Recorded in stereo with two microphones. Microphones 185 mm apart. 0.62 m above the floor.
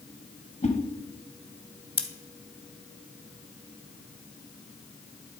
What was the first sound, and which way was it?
A whoosh, 40° left (ahead or behind).